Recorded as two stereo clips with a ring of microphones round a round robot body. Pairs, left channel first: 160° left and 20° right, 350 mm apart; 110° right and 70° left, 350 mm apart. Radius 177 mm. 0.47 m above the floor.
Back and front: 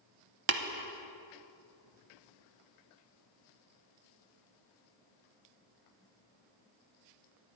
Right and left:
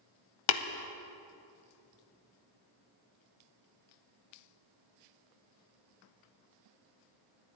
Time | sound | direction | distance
0.5 | tapping | 80° right | 0.6 m